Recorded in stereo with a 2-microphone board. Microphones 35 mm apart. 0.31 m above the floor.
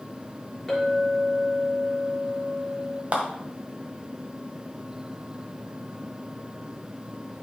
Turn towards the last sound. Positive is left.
turn(degrees=-40)  # may be behind; listen again after turning